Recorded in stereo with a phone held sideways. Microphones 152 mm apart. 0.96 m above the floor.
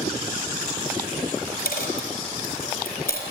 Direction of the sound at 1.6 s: 85° left.